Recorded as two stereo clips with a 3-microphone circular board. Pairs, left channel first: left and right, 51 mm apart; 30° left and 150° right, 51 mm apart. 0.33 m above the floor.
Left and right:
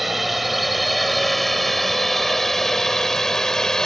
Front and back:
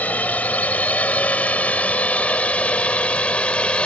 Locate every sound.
0.0 s a drone: 5° right; by 3.9 s 30° left